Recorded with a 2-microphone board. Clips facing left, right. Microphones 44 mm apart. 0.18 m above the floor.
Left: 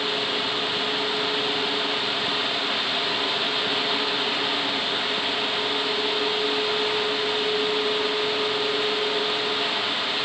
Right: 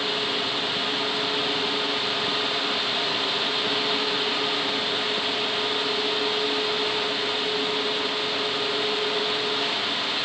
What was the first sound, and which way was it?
Only background noise.